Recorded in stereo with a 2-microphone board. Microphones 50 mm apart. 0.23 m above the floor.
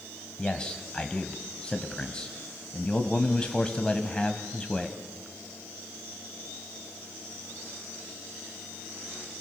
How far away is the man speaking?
About 1.6 m.